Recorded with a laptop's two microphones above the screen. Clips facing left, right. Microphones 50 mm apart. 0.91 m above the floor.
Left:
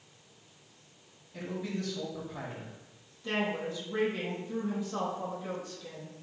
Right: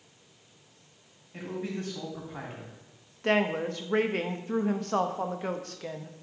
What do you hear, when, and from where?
1.3 s a man speaking: 40° right (ahead or behind), 3 m
3.2 s a woman speaking: 65° right (ahead or behind), 0.7 m